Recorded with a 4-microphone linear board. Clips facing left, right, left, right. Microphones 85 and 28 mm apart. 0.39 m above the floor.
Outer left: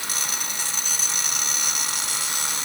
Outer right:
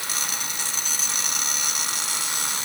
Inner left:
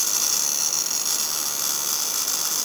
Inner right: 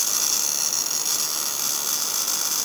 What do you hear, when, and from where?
Only background noise.